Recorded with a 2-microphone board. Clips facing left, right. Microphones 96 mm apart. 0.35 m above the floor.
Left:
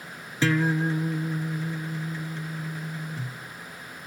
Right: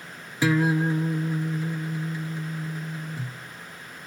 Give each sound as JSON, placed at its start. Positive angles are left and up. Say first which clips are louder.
{"t": 0.4, "sound": "a guitar", "louder": "right 2 dB", "side_deg": -15, "distance_m": 0.7}